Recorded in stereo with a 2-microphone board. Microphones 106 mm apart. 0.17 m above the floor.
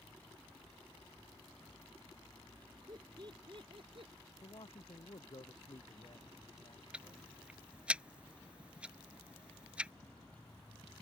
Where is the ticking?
10° right (ahead or behind).